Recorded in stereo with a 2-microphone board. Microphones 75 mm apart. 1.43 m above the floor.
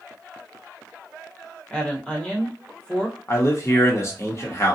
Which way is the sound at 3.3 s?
40° left (ahead or behind).